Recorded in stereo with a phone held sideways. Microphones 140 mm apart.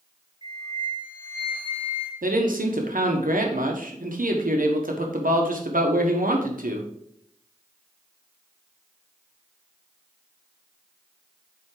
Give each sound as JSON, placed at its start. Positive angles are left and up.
{"t": 0.4, "sound": "a flute", "side_deg": 35, "distance_m": 1.5}
{"t": 2.2, "sound": "a man speaking", "side_deg": -80, "distance_m": 1.4}